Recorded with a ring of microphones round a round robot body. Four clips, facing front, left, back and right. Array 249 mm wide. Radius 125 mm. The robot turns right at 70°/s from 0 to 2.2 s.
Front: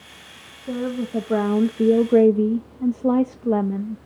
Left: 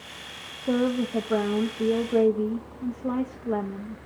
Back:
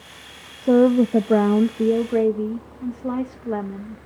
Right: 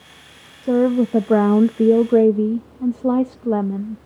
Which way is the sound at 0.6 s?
160° right.